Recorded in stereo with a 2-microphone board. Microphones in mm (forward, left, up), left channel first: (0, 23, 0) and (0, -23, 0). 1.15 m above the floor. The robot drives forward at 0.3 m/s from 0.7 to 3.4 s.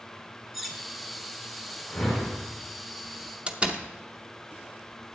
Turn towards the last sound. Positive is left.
turn(degrees=-20)  # may be behind; listen again after turning